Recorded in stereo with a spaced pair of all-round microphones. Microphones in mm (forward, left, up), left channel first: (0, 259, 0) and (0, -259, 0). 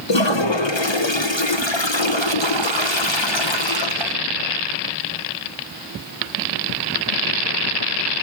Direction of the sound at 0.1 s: 60° left (ahead or behind).